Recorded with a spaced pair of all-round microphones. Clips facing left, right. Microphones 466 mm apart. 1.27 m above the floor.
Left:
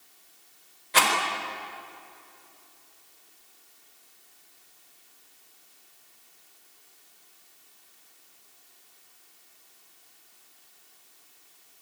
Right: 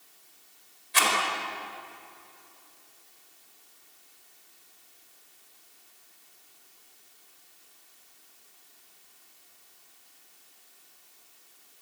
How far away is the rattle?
About 4.5 m.